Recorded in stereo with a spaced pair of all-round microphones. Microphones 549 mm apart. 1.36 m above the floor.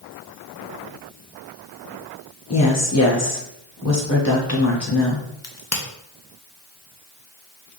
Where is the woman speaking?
30° left (ahead or behind), 1.2 m.